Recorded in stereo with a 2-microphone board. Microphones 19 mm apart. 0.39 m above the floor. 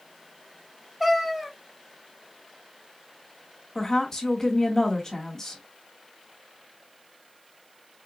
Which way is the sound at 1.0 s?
5° right (ahead or behind).